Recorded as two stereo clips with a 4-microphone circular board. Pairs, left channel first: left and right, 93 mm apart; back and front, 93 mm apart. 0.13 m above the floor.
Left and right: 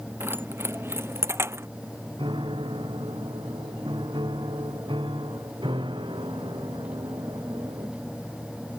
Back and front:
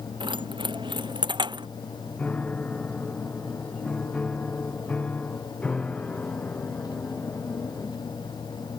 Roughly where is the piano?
Right.